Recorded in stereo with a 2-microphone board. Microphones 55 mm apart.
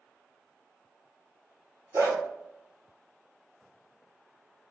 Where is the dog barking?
65° right (ahead or behind), 1.2 m.